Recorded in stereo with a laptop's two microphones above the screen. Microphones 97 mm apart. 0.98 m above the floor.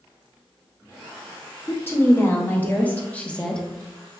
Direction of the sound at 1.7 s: 25° left (ahead or behind).